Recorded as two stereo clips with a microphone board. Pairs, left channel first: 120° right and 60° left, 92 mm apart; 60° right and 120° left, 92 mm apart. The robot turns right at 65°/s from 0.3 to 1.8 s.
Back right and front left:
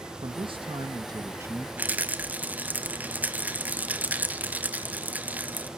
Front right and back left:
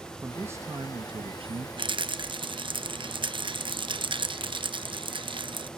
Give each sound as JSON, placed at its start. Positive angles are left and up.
{"t": 0.2, "sound": "a man speaking", "azimuth_deg": 50, "distance_m": 1.3}
{"t": 1.8, "sound": "a rattle", "azimuth_deg": 130, "distance_m": 1.1}